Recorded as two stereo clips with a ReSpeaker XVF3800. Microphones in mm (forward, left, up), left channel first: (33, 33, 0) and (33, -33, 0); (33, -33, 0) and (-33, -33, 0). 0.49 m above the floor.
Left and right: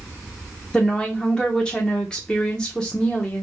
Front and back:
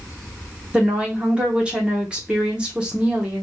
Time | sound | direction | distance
0.7 | a woman speaking | 140° left | 0.8 m